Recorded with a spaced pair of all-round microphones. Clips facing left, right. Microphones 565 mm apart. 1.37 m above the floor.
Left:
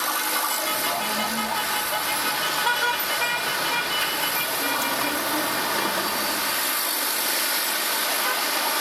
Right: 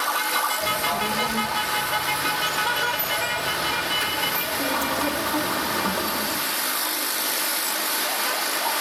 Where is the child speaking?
85° right, 4.5 m; by 6.4 s 40° right (ahead or behind), 2 m.